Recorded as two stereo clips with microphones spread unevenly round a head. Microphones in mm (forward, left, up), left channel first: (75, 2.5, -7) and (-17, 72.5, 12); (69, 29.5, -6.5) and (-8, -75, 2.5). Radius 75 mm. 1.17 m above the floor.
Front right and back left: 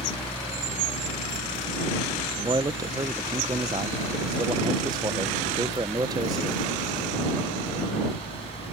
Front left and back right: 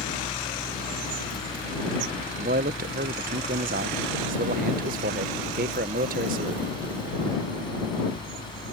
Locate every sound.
0.0 s a fan: straight ahead
2.4 s a man speaking: 150° right